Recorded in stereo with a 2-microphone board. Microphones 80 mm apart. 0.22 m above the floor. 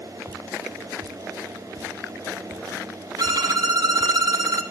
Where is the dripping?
80° right, 2.5 m.